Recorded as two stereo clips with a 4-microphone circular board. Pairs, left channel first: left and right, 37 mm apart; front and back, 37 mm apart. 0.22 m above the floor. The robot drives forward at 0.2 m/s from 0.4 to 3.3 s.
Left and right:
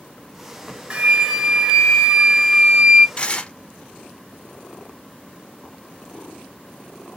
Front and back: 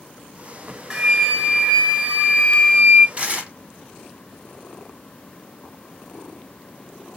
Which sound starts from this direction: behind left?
Tearing paper, at 3.2 s.